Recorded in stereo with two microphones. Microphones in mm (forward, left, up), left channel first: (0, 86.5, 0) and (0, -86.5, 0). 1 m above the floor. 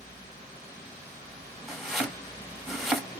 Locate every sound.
1.7 s chopping: centre (ahead or behind), 1.3 m